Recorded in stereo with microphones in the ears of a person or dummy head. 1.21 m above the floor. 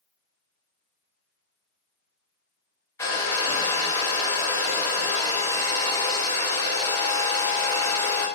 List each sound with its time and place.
3.0 s a hair dryer: 20° left (ahead or behind), 1.1 m